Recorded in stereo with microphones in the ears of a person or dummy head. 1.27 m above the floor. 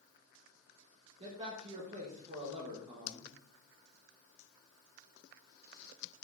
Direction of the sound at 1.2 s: 35° right (ahead or behind).